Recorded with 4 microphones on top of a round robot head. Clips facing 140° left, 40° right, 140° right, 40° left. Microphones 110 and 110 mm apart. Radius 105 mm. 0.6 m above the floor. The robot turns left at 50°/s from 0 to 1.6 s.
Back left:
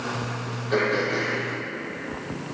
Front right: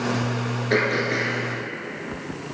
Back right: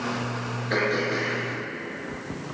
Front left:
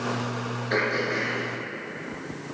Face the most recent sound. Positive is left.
turn(degrees=-95)